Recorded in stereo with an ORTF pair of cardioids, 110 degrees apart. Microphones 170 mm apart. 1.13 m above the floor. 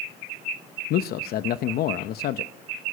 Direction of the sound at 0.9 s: 65° left.